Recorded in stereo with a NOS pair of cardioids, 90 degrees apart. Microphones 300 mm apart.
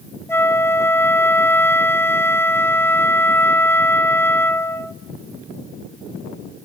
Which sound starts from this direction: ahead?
A flute, at 0.3 s.